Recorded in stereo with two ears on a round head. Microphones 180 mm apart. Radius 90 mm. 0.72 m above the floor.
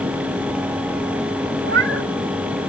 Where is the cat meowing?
65° right (ahead or behind).